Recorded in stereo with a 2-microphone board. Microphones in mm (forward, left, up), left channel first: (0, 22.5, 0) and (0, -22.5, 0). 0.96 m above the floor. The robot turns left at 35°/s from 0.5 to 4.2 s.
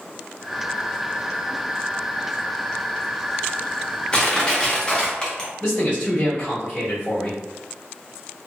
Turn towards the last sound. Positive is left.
turn(degrees=30)  # may be behind; listen again after turning